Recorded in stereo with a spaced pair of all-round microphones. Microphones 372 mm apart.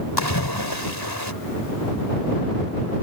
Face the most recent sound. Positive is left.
turn(degrees=85)